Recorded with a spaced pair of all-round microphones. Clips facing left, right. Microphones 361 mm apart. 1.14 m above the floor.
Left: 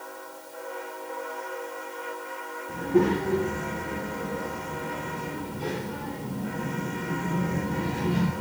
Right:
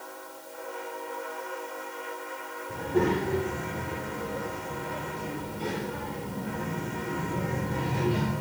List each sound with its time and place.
2.7 s a child speaking: 75° left (ahead or behind), 2.5 m; by 8.3 s 60° left (ahead or behind), 7 m